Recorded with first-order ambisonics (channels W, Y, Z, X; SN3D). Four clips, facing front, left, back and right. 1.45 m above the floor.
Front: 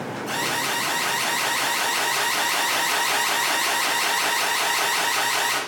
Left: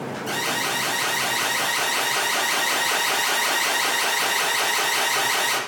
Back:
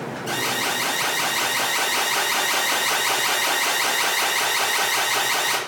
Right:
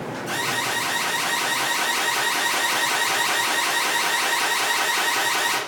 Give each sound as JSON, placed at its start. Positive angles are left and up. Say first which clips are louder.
{"t": 0.3, "sound": "an alarm", "louder": "even, back 1 dB", "azimuth_deg": 155, "distance_m": 1.6}